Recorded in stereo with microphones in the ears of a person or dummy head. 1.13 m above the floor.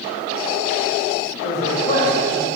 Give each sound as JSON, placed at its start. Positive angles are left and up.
{"t": 1.4, "sound": "a man speaking", "side_deg": 35, "distance_m": 2.0}